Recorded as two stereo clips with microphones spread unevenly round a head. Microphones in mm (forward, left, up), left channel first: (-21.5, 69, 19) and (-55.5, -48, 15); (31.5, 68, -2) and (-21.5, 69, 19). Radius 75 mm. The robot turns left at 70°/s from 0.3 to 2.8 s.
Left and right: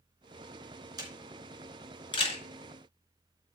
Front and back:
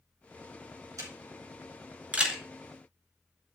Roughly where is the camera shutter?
Behind.